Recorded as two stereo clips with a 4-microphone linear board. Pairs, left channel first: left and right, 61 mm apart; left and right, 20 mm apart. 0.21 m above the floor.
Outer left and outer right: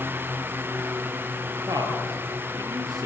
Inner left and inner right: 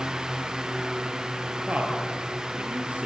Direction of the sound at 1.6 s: 75° right (ahead or behind).